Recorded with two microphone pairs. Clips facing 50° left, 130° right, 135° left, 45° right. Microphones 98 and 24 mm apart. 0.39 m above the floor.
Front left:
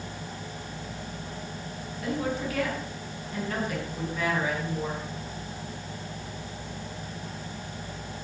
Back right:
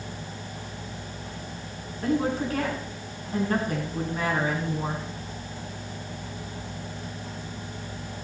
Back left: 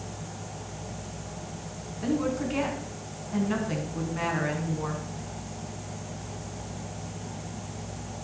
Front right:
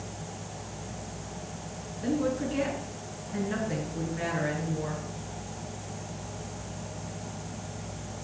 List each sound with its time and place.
2.0 s a woman speaking: 175° left, 4 m